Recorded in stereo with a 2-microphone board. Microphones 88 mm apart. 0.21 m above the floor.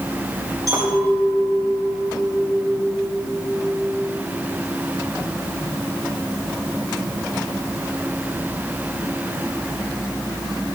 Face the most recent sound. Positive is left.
turn(degrees=-45)  # may be behind; listen again after turning